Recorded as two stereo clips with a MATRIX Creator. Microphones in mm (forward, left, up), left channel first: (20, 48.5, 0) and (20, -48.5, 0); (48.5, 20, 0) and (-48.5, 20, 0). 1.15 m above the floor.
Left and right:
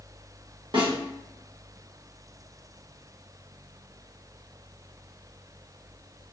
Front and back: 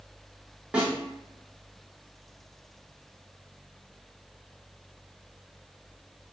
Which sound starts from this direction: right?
A snare drum, at 0.7 s.